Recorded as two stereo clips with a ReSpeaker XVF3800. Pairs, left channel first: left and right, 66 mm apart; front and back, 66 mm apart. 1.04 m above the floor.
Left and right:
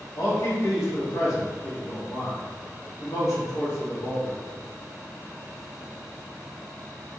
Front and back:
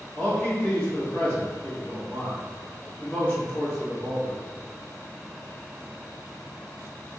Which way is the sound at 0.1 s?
70° left.